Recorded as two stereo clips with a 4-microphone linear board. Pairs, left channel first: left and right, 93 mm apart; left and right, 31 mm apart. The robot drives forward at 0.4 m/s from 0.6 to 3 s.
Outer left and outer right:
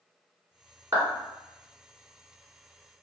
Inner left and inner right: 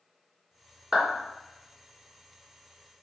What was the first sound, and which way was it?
A clap, 35° right (ahead or behind).